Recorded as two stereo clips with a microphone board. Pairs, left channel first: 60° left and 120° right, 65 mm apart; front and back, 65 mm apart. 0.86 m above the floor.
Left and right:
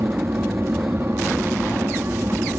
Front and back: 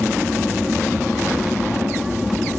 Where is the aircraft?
100° right.